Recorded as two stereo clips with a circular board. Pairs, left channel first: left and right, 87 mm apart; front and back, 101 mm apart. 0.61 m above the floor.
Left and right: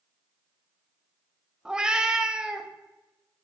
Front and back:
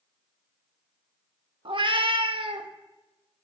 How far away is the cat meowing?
About 0.5 m.